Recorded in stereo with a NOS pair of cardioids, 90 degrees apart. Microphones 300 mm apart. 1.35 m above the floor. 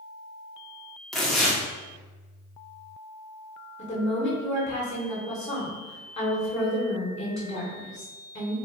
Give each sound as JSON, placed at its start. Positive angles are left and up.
{"t": 1.1, "sound": "tearing paper", "azimuth_deg": 0, "distance_m": 1.0}
{"t": 3.8, "sound": "a woman speaking", "azimuth_deg": 25, "distance_m": 1.3}